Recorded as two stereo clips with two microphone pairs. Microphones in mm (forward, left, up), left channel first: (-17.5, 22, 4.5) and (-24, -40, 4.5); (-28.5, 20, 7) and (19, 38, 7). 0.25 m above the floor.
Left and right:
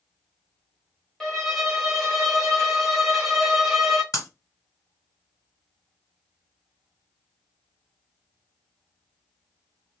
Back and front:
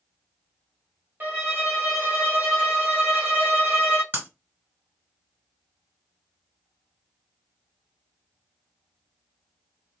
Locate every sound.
1.2 s a violin: 5° left, 1.2 m
4.1 s breaking glass: 70° left, 1.5 m